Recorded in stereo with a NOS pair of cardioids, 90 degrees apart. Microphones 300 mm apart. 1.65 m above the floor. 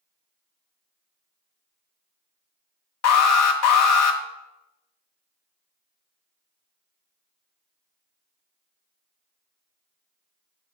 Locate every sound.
3.0 s an alarm: 60° left, 1.1 m